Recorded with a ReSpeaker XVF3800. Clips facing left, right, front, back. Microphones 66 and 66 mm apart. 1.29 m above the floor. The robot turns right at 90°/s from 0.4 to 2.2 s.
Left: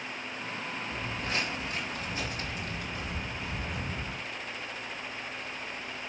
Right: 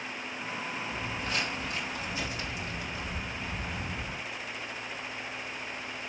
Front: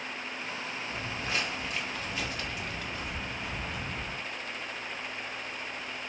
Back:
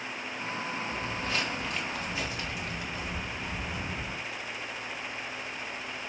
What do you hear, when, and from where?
0.9 s footsteps: 35° left, 1.5 m; by 4.2 s 85° left, 2.5 m